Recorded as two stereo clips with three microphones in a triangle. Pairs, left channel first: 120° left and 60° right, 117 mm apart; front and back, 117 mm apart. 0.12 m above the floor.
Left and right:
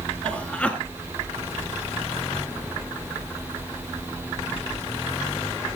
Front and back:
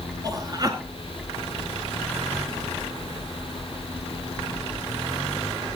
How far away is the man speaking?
About 1.2 m.